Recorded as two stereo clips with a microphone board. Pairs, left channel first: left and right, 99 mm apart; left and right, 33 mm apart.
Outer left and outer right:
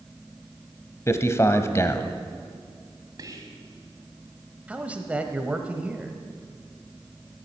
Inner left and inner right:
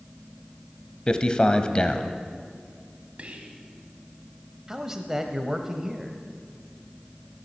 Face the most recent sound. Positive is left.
turn(degrees=-15)  # may be behind; listen again after turning